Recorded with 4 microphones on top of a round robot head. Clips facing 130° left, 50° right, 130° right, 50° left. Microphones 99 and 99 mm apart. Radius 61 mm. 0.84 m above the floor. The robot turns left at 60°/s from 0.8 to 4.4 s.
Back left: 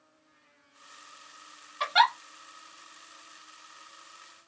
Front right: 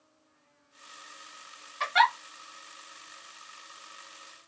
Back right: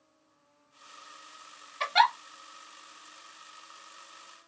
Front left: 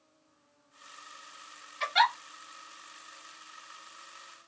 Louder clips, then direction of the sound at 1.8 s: Even, back right 2 dB; 155° right.